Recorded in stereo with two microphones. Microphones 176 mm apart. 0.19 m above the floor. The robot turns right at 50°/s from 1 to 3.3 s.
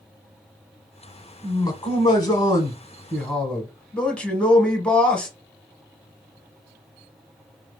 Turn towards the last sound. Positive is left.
turn(degrees=5)  # may be behind; listen again after turning